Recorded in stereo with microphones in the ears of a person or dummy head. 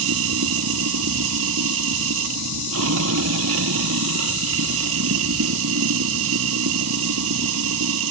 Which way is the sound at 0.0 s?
80° right.